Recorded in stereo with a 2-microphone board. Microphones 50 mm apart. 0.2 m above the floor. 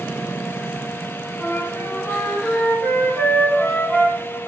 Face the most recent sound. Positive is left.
turn(degrees=45)  # may be behind; listen again after turning